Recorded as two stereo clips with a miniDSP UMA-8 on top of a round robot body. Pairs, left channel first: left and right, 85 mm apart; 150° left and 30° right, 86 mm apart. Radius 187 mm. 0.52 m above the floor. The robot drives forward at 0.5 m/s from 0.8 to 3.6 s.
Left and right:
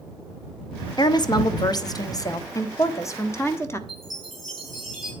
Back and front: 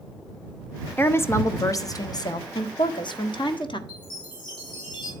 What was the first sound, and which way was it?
A woman speaking, 90° left.